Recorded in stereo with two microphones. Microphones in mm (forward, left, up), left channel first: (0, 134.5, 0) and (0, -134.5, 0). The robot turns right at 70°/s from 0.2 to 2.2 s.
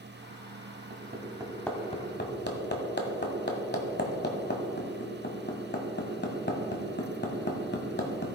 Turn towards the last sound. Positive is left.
turn(degrees=40)  # may be behind; listen again after turning